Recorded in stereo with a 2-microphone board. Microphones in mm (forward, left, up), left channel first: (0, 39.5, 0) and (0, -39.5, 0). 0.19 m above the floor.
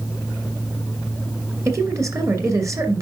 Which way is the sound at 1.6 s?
40° right (ahead or behind).